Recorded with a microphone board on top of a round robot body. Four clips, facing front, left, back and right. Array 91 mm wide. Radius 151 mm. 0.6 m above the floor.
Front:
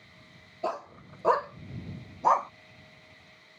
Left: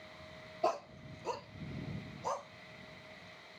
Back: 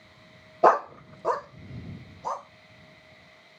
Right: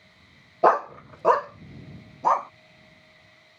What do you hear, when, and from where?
0.6 s a dog barking: 135° right; by 2.5 s 60° right